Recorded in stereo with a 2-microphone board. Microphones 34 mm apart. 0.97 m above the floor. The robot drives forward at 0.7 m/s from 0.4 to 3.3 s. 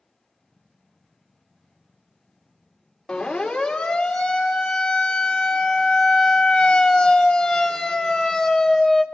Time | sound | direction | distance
3.1 | a siren | 15° left (ahead or behind) | 2.5 m